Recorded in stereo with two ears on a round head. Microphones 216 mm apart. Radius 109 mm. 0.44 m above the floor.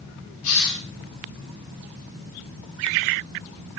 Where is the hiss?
85° left, 1.5 m.